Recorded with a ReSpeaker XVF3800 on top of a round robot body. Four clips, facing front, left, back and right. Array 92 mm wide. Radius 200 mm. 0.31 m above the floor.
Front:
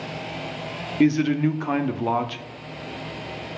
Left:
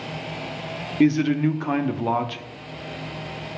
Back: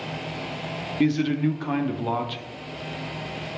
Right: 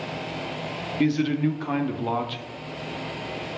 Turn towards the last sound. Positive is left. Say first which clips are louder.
# left 4 dB, front 3 dB
turn(degrees=45)